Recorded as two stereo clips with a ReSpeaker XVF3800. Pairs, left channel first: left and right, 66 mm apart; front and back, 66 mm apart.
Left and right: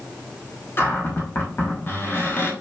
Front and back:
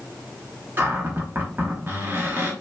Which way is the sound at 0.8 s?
135° left.